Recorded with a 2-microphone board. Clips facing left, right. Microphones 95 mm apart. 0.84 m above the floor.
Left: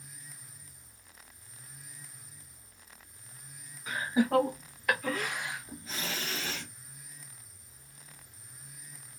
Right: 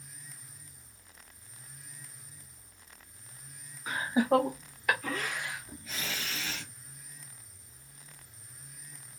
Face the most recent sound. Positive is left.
turn(degrees=50)  # may be behind; listen again after turning